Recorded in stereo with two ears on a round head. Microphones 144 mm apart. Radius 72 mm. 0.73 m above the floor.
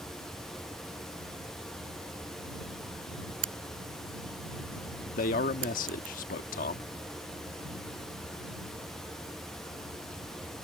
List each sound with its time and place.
3.4 s a crack: 85° right
5.1 s a man speaking: 55° left (ahead or behind)